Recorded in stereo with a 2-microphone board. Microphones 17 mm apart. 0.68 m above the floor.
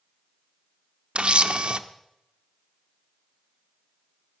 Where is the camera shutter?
65° right (ahead or behind), 0.7 m.